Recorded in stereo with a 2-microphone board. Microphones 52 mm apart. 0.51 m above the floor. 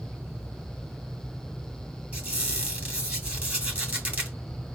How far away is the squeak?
About 2.5 m.